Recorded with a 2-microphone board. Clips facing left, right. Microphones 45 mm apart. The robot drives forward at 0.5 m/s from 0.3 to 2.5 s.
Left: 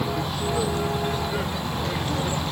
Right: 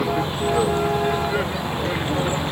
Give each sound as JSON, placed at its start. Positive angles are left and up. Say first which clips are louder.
{"t": 0.0, "sound": "a vehicle", "louder": "right 5 dB", "side_deg": -25}